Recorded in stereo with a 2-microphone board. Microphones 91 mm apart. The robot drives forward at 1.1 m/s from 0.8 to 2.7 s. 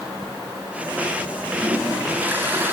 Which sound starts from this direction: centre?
A toilet flushing, at 1.6 s.